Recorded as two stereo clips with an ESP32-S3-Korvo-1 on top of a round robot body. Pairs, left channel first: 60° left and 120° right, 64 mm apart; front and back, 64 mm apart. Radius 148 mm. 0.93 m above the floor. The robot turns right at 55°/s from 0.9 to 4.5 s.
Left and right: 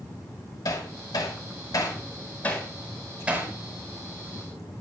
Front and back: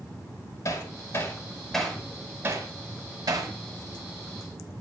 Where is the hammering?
40° left, 4.5 m; by 3.5 s straight behind, 4.5 m.